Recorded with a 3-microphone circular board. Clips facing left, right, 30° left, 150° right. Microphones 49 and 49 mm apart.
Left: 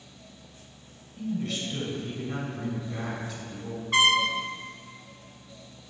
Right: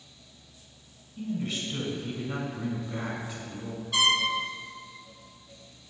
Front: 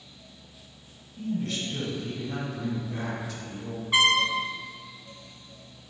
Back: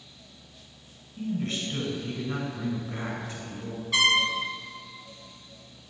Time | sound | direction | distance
1.2 | a man speaking | 145° right | 1.3 m
3.9 | a trumpet | 80° left | 0.8 m